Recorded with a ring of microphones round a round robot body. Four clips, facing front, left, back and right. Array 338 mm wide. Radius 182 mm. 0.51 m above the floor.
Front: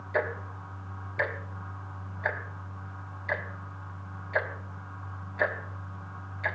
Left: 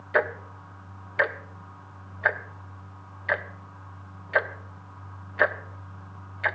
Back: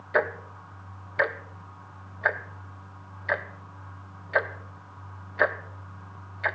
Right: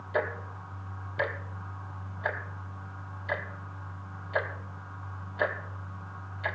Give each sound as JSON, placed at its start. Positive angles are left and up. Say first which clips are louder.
{"t": 0.1, "sound": "ticking", "louder": "left 5 dB, back 4 dB", "azimuth_deg": 130, "distance_m": 1.0}